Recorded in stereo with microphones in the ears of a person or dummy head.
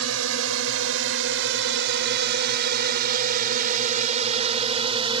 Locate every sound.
0.0 s a drone: 80° right; by 5.2 s 30° right (ahead or behind)